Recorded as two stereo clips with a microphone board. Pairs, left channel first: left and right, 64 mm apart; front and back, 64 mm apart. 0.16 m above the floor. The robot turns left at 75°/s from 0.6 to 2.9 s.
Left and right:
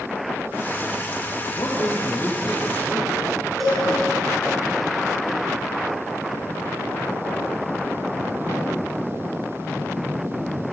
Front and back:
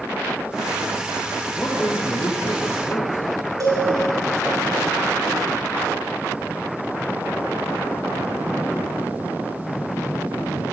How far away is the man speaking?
About 3.5 m.